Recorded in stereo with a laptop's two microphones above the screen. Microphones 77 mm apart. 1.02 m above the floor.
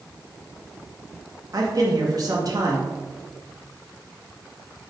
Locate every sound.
1.5 s a man speaking: 55° right (ahead or behind), 1.2 m